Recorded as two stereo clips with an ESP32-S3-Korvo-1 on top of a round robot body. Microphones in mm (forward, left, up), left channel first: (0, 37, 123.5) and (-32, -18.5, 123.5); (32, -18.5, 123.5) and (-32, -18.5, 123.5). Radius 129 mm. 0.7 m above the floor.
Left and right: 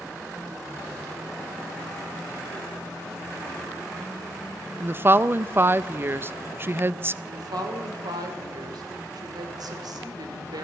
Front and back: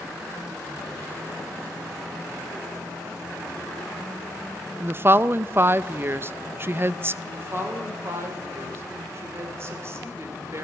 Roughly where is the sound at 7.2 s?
Behind right.